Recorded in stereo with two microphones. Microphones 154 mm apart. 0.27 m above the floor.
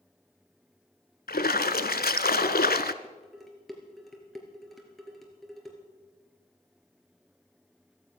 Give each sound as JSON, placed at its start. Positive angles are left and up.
{"t": 1.3, "sound": "a splash", "side_deg": 80, "distance_m": 0.7}
{"t": 3.0, "sound": "dishes clattering", "side_deg": 0, "distance_m": 3.0}